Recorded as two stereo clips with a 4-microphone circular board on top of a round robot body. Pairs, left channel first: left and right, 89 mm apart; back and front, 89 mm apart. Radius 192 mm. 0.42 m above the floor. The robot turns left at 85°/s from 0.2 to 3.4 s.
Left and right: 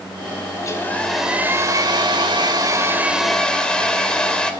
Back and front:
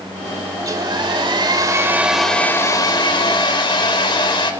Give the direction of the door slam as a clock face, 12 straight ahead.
I don't hear a door slam.